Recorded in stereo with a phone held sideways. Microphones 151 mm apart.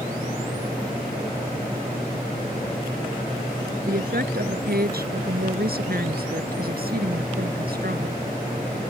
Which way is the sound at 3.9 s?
75° right (ahead or behind).